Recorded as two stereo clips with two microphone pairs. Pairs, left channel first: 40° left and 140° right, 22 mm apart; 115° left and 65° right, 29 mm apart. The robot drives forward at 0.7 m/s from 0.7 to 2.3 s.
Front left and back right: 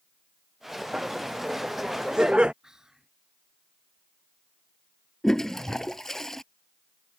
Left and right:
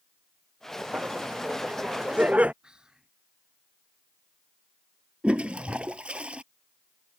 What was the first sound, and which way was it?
Laughter, 95° right.